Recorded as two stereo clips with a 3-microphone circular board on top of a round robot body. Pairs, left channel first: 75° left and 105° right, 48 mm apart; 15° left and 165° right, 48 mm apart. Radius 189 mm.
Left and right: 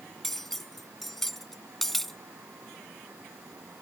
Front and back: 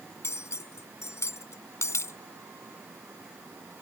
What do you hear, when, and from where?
0.2 s cutlery clinking: 10° right